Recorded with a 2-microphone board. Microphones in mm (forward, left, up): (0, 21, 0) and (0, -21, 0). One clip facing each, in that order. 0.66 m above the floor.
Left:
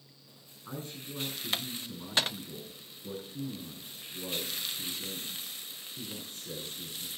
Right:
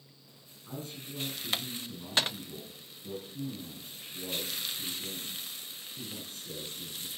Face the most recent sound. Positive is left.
turn(degrees=35)  # may be behind; listen again after turning